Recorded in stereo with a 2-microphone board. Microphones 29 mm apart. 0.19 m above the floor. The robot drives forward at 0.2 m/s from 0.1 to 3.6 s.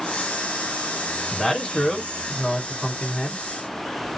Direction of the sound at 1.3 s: 25° left (ahead or behind).